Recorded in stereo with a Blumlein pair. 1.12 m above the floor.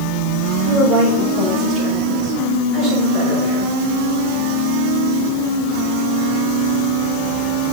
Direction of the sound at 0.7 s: 25° right.